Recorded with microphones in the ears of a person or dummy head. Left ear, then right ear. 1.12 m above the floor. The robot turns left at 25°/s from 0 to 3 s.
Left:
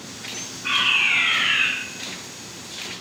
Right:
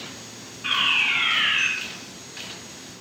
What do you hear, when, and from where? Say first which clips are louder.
0.6 s a fire alarm: left 2 dB; 65° right (ahead or behind), 5.5 m; by 1.7 s 40° right (ahead or behind), 5.5 m